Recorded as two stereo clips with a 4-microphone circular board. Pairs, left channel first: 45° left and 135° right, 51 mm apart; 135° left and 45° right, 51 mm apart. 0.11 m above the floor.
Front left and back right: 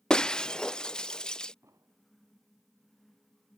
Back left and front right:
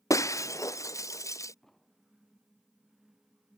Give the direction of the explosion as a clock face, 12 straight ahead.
5 o'clock.